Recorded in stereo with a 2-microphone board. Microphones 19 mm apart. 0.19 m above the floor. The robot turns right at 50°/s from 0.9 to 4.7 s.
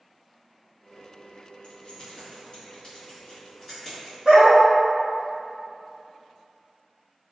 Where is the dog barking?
30° right (ahead or behind), 1.5 m; by 4.6 s 45° right (ahead or behind), 1.5 m.